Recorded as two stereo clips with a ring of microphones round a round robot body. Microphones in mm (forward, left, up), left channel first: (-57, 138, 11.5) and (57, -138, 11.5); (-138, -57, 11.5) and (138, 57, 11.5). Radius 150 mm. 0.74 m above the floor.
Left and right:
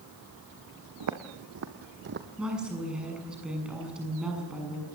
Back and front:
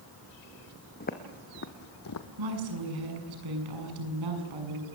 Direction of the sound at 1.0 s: 95° right.